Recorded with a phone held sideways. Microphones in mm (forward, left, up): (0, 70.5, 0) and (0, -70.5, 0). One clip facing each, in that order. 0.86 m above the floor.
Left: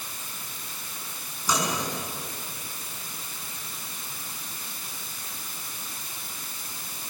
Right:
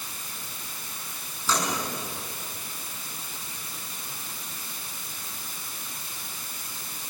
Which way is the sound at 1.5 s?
15° left (ahead or behind).